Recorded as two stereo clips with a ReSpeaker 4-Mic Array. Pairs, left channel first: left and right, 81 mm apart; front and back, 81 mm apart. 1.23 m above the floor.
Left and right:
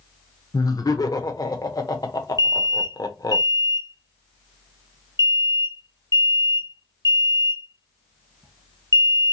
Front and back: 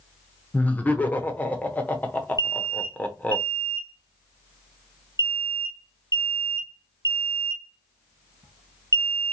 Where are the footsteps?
No footsteps in this recording.